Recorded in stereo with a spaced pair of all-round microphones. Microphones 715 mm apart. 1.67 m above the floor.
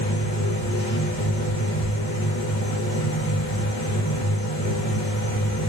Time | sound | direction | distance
0.0 | a machine running | 10° left (ahead or behind) | 2 m